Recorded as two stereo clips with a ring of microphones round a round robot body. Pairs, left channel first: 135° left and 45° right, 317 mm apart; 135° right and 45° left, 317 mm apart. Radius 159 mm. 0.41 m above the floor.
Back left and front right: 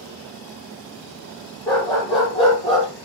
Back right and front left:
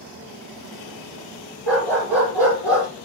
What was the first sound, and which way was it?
A dog barking, 55° left.